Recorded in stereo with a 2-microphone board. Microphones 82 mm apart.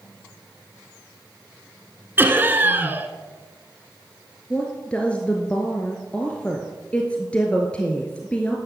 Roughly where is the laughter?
Right.